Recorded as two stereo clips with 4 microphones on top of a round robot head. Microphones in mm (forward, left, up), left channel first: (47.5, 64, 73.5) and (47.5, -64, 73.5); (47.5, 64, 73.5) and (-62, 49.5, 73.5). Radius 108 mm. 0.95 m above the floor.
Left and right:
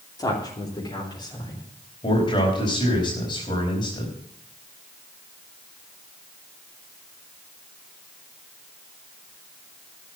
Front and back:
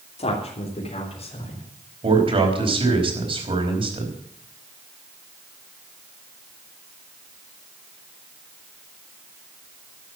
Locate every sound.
0.2 s a woman speaking: 30° left, 3 m; by 1.6 s 35° left, 4.5 m
2.0 s a man speaking: 150° left, 4.5 m